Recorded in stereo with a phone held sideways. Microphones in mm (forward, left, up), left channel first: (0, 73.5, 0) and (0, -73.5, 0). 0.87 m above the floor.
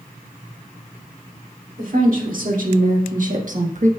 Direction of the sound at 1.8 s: 65° right (ahead or behind).